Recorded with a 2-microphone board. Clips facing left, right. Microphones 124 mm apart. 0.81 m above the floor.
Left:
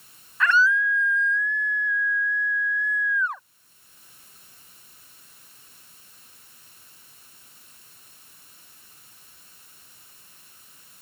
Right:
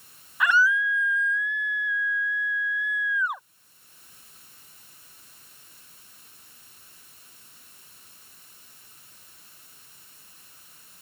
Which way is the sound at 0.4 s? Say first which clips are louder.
Left 1 dB; 15° right (ahead or behind).